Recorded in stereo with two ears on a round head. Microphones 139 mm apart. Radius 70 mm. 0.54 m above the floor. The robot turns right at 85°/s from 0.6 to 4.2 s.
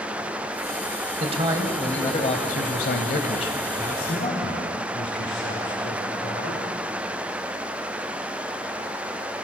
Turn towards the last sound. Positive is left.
turn(degrees=85)